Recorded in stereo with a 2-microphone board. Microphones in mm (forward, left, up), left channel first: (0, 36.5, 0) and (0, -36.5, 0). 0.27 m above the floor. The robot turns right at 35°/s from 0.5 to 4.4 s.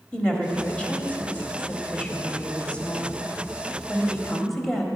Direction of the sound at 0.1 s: 15° left (ahead or behind).